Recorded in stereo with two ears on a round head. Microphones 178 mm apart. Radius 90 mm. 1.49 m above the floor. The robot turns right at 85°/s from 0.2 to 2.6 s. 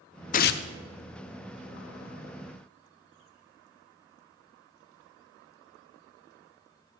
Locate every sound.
0.3 s tearing paper: 40° left (ahead or behind), 0.6 m; by 0.7 s 65° left (ahead or behind), 0.6 m